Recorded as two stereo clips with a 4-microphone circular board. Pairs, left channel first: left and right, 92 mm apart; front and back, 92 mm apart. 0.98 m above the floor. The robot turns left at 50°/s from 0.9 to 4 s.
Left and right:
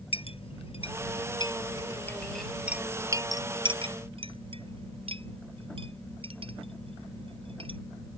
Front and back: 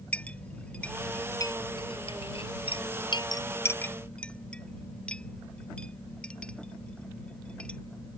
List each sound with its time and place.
0.1 s a clink: 75° left; by 7.8 s 80° right